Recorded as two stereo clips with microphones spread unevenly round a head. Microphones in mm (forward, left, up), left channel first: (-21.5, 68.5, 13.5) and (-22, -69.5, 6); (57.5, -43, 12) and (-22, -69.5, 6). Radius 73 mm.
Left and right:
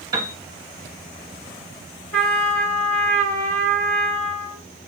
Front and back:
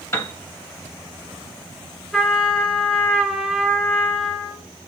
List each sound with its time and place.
0.1 s a piano: 25° right, 0.8 m
2.1 s a trumpet: 100° left, 2 m